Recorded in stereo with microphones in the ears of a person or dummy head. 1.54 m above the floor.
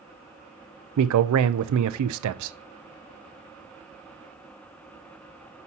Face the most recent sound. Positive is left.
turn(degrees=-80)